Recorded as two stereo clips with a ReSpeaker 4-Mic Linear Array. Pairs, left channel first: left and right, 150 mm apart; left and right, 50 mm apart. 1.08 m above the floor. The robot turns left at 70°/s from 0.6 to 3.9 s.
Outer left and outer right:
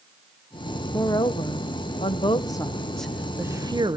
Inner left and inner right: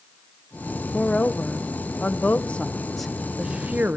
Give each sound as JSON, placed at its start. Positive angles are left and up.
{"t": 0.9, "sound": "a woman speaking", "side_deg": 20, "distance_m": 0.8}